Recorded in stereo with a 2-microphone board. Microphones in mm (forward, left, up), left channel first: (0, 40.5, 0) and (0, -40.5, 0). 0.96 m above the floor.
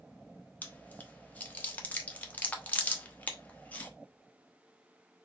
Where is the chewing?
20° left (ahead or behind), 0.9 m.